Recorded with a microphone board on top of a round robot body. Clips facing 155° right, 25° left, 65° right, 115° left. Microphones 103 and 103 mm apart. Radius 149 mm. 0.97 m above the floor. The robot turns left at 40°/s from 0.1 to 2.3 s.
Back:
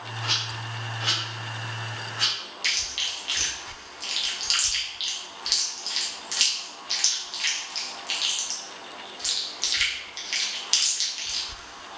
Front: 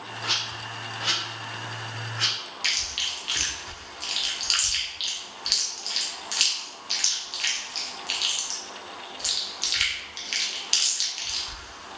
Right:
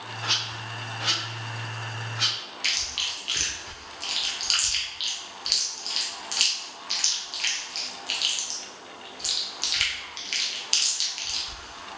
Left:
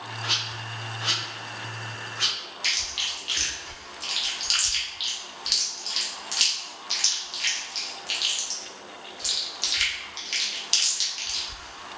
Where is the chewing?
20° right, 0.7 m.